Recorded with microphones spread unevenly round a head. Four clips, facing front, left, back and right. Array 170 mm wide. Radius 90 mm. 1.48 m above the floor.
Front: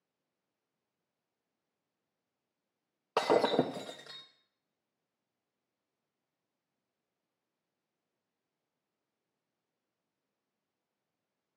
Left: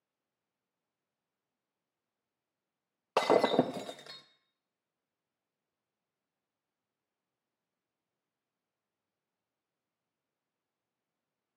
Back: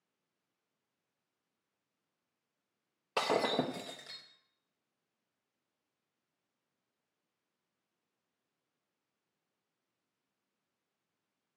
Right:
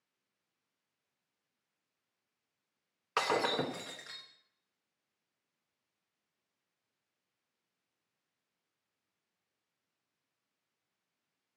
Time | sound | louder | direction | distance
3.2 | breaking glass | left 6 dB, front 4 dB | 60° left | 1.0 m